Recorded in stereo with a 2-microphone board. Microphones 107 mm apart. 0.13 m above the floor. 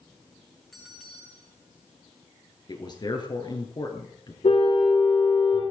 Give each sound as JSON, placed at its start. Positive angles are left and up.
{"t": 0.7, "sound": "a bell", "side_deg": 0, "distance_m": 4.0}
{"t": 2.7, "sound": "a man speaking", "side_deg": 45, "distance_m": 2.5}
{"t": 4.4, "sound": "a car horn", "side_deg": 75, "distance_m": 5.5}